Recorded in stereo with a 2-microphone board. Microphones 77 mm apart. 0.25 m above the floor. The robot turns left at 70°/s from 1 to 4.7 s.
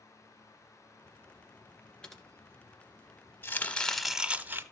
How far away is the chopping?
About 1.0 m.